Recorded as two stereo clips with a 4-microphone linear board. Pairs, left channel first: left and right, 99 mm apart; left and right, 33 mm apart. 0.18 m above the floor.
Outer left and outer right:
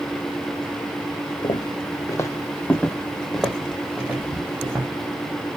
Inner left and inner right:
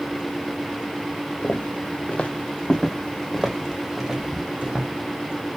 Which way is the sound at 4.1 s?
Centre (ahead or behind).